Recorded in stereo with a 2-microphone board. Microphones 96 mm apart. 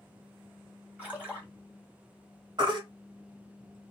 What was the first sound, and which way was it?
A splash, 15° right (ahead or behind).